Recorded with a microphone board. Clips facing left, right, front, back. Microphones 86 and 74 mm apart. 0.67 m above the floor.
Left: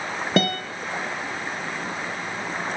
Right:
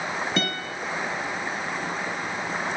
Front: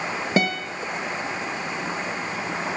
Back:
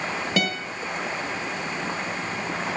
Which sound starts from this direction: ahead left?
A guitar, at 0.4 s.